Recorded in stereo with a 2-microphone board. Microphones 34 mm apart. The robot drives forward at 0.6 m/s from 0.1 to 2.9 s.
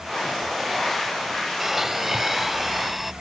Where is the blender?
15° right (ahead or behind); by 3.1 s 10° right (ahead or behind).